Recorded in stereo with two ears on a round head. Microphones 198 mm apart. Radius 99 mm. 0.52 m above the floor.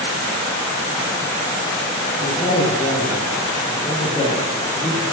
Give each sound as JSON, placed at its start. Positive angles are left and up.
{"t": 2.2, "sound": "a man speaking", "side_deg": 15, "distance_m": 10.0}